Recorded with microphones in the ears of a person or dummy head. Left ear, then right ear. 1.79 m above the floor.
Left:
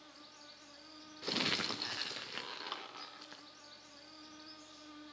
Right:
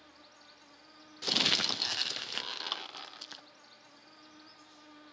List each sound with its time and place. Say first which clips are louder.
0.0 s an insect: left 1 dB; 10° right (ahead or behind), 3 m
1.2 s crumpling: right 7 dB; 30° right (ahead or behind), 0.7 m